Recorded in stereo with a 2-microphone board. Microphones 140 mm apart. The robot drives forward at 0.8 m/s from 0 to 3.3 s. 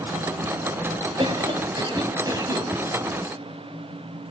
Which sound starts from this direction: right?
A cough, at 1.2 s.